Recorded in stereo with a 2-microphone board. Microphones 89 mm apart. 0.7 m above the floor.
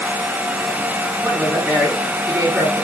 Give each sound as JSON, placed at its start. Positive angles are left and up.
{"t": 1.2, "sound": "a woman speaking", "side_deg": -25, "distance_m": 6.0}